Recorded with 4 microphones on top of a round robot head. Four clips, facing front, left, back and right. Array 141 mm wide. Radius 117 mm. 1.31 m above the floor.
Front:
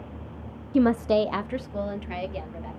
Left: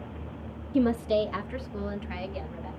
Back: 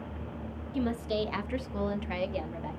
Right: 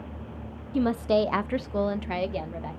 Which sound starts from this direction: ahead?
A woman speaking, at 0.7 s.